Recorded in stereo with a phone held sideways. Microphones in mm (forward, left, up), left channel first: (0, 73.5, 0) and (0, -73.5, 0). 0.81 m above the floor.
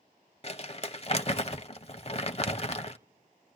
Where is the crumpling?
45° left (ahead or behind), 0.7 m.